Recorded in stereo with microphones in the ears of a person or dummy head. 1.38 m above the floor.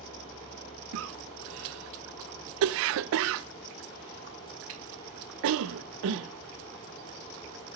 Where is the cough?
65° right (ahead or behind), 0.7 m.